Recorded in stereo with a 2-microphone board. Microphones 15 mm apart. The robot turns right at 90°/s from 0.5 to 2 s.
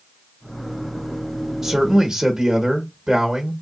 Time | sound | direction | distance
1.6 | a man speaking | 160° right | 1.2 m